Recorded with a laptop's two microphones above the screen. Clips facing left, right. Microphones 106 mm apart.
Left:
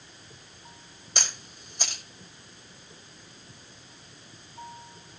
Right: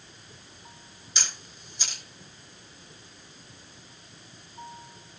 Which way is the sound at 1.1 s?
55° left (ahead or behind).